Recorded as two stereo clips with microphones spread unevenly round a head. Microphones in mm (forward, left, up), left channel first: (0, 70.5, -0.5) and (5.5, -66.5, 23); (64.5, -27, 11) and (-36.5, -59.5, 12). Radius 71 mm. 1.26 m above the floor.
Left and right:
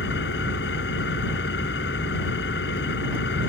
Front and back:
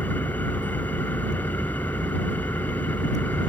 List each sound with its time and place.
0.0 s an engine running: 95° left